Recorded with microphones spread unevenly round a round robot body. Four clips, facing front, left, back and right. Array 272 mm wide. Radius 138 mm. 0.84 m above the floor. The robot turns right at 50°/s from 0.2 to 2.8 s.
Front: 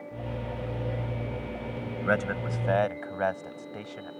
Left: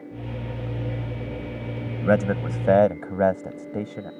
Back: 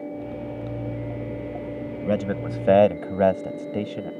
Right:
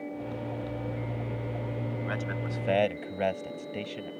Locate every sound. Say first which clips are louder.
2.0 s a man speaking: left 12 dB, back 3 dB; 110° left; by 4.1 s 145° left